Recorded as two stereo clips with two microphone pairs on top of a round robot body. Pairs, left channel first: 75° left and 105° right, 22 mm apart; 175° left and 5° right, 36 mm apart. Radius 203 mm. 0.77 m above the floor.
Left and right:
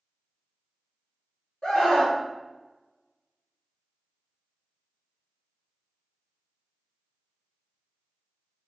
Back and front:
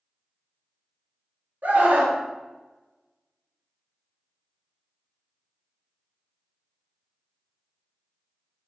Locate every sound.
1.6 s a scream: 20° left, 4.5 m